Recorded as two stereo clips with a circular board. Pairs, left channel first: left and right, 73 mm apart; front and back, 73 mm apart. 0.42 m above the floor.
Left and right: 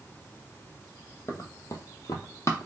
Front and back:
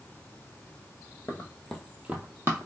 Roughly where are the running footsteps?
Ahead left.